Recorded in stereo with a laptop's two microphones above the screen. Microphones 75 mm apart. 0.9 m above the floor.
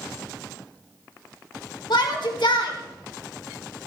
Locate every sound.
1.9 s a shout: 75° left (ahead or behind), 2.5 m